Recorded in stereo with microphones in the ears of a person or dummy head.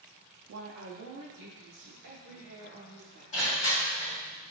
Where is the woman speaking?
65° right (ahead or behind), 0.5 m; by 3.2 s 60° right (ahead or behind), 2 m.